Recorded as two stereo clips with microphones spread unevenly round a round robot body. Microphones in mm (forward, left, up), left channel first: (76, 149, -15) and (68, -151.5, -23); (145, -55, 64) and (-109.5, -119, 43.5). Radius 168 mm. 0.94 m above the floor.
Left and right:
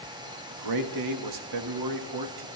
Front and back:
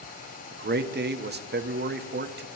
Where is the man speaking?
115° right, 1.1 m.